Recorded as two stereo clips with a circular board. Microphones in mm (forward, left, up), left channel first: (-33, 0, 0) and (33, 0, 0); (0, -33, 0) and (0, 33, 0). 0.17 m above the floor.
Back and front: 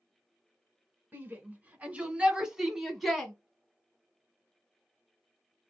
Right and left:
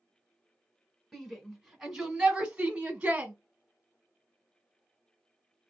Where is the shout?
5° right, 1.5 m; by 3.3 s 105° left, 1.3 m.